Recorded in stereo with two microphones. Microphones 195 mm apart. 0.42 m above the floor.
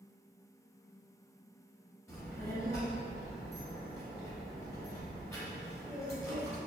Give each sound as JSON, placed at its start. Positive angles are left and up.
{"t": 2.1, "sound": "a child speaking", "side_deg": 15, "distance_m": 1.5}